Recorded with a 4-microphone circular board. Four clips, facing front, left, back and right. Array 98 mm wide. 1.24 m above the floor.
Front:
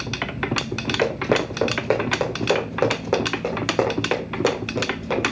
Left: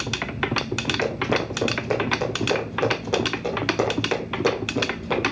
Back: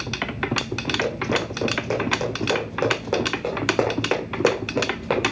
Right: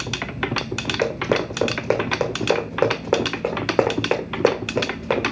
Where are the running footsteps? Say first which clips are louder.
Right 4 dB, front 5 dB; 50° right, 3 m; by 5.3 s 115° right, 2.5 m.